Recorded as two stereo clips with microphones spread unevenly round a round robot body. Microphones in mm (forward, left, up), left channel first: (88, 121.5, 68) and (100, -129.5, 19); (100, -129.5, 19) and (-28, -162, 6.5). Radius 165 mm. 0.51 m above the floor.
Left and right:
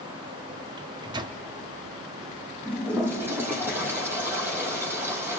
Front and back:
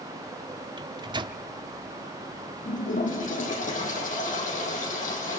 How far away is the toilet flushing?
About 5 m.